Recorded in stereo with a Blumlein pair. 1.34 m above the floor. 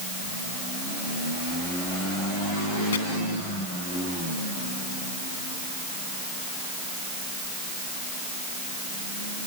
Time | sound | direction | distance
2.9 | chopping | 65° left | ?